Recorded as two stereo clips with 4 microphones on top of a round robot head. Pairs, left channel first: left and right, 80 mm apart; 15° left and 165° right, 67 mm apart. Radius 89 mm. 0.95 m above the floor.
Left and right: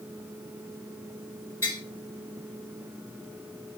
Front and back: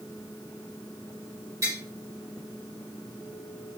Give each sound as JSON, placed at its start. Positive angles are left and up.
{"t": 1.6, "sound": "tapping", "azimuth_deg": 155, "distance_m": 2.5}